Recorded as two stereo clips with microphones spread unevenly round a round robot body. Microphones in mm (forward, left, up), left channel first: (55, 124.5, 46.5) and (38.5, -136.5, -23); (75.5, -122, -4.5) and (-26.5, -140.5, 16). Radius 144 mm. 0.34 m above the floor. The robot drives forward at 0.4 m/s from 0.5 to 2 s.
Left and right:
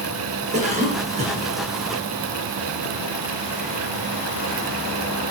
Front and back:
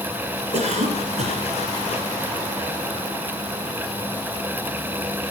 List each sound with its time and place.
0.5 s a cough: 155° right, 4.5 m; by 1.5 s 160° right, 4.5 m